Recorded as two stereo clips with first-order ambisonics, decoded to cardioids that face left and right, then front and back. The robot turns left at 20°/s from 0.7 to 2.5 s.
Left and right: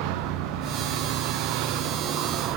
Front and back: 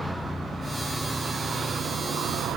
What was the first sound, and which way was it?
A vehicle, 90° right.